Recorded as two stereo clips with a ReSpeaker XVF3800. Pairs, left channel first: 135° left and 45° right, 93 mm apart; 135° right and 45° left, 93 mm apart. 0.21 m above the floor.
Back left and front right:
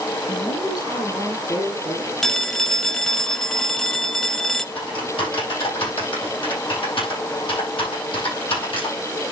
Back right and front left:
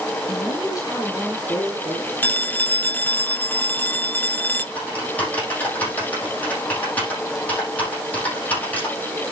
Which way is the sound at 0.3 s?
Straight behind.